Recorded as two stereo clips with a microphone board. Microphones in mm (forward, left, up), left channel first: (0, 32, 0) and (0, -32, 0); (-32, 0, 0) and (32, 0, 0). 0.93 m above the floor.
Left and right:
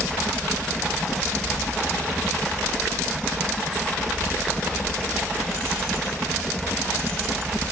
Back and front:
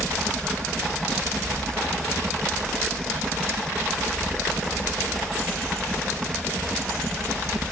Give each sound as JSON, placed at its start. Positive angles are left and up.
{"t": 0.0, "sound": "a helicopter", "azimuth_deg": -5}